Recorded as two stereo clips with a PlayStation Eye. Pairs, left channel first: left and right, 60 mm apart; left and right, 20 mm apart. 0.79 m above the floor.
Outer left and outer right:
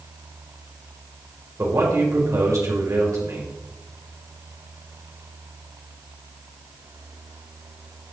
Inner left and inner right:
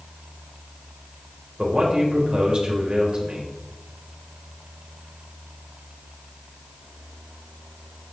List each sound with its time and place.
1.6 s a man speaking: 60° right (ahead or behind), 4 m